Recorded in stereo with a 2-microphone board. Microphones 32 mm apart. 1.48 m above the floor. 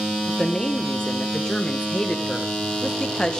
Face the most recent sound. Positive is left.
turn(degrees=25)  # may be behind; listen again after turning